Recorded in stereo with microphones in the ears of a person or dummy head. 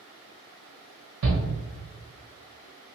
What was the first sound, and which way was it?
A shout, 85° right.